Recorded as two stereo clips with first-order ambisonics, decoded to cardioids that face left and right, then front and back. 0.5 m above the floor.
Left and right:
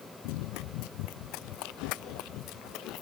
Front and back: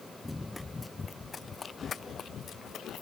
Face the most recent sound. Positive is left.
turn(degrees=50)